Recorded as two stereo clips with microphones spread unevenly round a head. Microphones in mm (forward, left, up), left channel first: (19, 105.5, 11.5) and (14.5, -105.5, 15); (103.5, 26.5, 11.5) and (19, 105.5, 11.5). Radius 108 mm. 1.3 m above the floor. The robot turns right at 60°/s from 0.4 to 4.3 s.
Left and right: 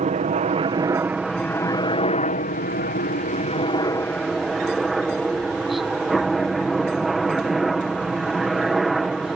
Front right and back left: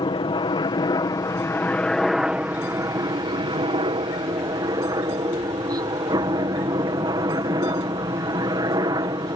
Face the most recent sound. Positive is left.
turn(degrees=180)